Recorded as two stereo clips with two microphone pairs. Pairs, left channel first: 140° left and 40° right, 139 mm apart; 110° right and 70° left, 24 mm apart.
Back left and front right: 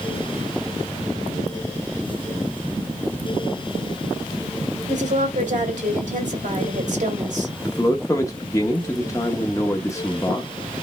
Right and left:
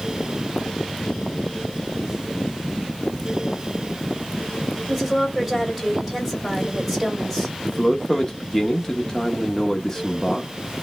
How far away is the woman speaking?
About 2.5 m.